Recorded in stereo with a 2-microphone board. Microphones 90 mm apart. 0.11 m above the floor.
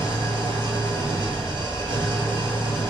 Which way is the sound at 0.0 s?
50° right (ahead or behind).